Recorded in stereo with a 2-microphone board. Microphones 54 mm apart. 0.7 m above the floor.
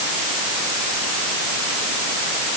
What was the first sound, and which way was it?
Only background noise.